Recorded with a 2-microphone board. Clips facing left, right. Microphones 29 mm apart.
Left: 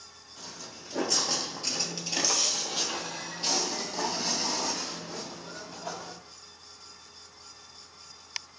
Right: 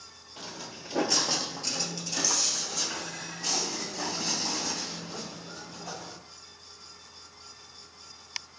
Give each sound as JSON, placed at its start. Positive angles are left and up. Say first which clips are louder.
{"t": 0.4, "sound": "footsteps", "louder": "right 3 dB", "side_deg": -40, "distance_m": 0.9}